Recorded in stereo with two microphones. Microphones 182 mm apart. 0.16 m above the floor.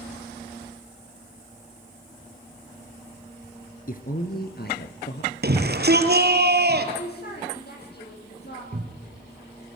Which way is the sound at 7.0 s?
65° left (ahead or behind).